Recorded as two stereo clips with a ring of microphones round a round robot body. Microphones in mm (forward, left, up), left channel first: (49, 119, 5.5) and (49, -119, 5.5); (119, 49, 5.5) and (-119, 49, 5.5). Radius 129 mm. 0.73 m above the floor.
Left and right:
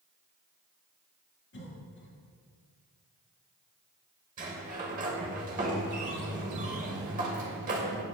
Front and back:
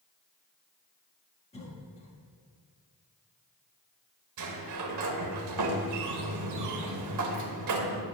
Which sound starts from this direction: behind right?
A sliding door, at 4.4 s.